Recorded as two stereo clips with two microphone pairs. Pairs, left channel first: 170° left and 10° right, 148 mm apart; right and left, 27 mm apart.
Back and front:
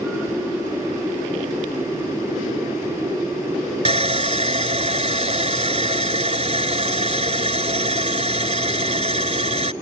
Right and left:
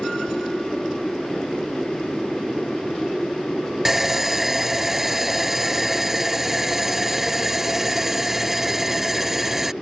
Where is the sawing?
10° left.